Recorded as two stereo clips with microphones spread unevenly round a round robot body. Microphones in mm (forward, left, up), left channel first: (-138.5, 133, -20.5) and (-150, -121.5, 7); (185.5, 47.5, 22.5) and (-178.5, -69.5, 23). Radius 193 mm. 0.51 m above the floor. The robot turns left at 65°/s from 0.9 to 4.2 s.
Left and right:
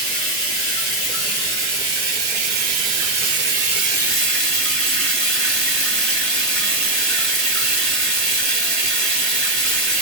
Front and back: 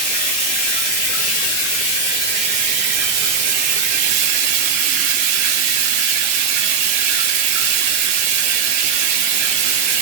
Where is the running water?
25° left, 1.8 m; by 10.0 s 170° left, 1.8 m.